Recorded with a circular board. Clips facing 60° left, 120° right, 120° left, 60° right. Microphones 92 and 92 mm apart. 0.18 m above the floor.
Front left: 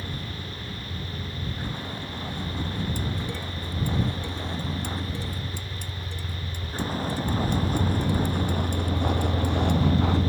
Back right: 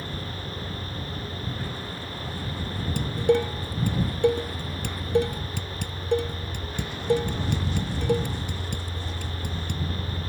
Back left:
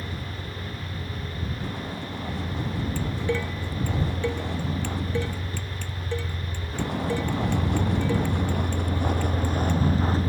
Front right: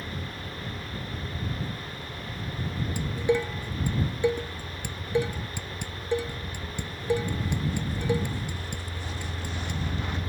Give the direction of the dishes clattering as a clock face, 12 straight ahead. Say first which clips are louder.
Back right 10 dB, front right 5 dB; 4 o'clock.